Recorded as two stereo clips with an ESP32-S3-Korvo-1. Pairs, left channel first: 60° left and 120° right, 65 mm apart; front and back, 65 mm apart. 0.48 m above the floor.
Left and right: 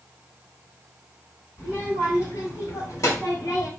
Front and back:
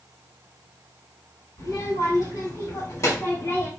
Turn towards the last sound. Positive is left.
turn(degrees=50)